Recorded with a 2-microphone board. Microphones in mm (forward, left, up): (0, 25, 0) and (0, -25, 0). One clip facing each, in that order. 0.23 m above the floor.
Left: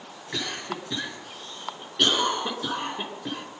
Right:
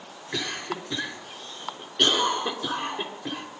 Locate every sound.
0.3 s a cough: centre (ahead or behind), 3 m